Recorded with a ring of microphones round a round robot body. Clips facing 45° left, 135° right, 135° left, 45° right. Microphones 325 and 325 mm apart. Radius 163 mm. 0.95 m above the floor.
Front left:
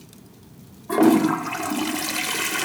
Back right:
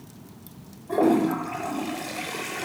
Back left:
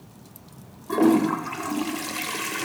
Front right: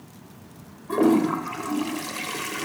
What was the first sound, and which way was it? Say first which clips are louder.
A toilet flushing: front left 4 dB, even; 50° left.